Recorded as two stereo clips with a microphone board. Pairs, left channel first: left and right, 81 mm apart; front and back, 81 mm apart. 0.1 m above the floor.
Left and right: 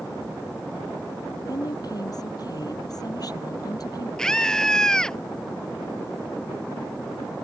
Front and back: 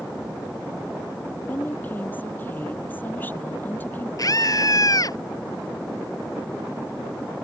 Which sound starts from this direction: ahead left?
A woman speaking, at 1.5 s.